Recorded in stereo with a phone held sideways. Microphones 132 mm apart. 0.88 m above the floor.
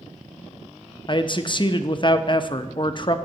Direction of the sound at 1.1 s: 40° left (ahead or behind).